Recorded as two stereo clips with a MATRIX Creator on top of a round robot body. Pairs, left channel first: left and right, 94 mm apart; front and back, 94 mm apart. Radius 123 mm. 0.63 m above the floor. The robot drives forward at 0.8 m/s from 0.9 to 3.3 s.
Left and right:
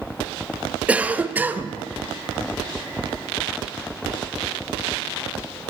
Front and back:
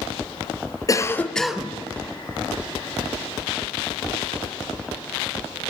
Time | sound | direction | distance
0.9 | a cough | 20° right | 0.8 m